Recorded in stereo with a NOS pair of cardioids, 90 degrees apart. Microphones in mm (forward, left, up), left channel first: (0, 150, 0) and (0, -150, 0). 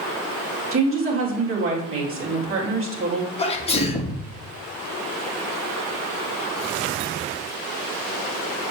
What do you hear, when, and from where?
0.7 s a woman speaking: 40° right, 3.5 m
3.4 s a sneeze: 20° left, 2 m